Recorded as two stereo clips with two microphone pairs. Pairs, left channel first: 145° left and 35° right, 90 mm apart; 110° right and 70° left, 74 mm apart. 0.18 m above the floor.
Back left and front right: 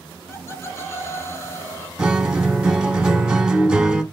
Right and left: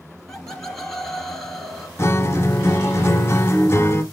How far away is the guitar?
About 0.9 m.